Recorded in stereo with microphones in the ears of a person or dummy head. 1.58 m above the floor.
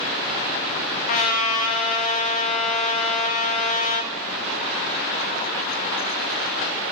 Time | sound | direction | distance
1.1 | a trumpet | 45° left (ahead or behind) | 0.7 m